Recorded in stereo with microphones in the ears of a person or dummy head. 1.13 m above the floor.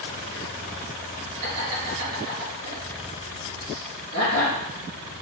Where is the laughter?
40° right (ahead or behind), 1.7 m.